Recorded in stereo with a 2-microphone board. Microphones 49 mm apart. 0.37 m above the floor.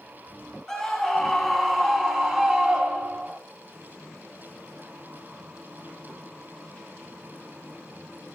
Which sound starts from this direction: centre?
A scream, at 0.7 s.